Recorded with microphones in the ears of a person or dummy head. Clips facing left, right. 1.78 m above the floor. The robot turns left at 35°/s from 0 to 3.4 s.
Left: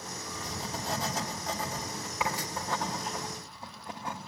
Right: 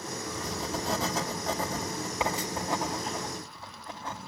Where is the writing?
85° right, 3 m; by 4.2 s 15° left (ahead or behind), 3 m.